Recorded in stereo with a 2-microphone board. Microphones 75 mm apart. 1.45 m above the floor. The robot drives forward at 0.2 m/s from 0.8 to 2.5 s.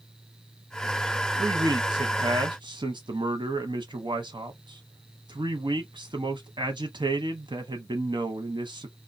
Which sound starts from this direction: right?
A man speaking, at 1.4 s.